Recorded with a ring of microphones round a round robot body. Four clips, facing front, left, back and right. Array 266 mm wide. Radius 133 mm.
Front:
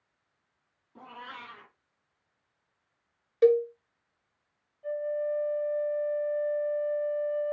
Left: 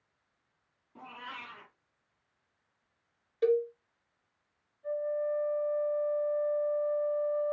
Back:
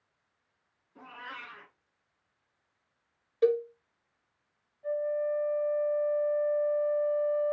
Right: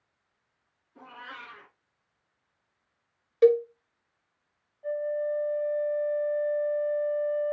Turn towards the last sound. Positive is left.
turn(degrees=-80)